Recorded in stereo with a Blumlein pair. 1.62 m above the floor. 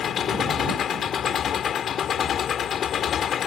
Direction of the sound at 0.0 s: 25° left.